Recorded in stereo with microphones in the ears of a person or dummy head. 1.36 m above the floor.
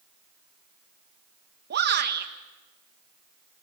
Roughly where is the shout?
Right.